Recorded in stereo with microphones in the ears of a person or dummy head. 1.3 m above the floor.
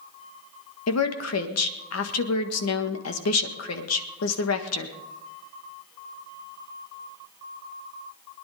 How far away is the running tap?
No running tap in this recording.